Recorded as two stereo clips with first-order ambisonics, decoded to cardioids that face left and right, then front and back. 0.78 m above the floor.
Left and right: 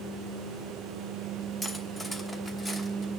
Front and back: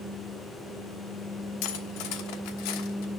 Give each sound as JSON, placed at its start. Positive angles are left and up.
{"t": 1.6, "sound": "cutlery clinking", "azimuth_deg": 10, "distance_m": 1.0}